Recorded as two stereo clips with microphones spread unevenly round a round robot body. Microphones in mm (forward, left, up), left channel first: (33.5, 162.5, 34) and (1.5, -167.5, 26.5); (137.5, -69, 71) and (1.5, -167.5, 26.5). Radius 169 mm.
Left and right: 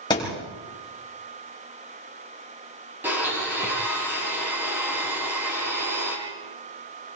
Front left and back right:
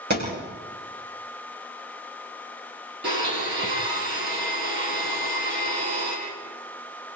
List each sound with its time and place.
0.1 s a thud: 160° left, 8 m
3.0 s a blender: straight behind, 7 m